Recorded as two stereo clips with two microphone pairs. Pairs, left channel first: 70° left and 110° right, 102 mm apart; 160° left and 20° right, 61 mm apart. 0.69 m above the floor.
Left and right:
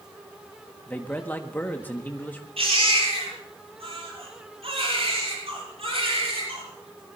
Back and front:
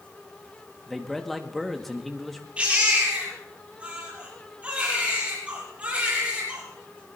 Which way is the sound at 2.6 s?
90° right.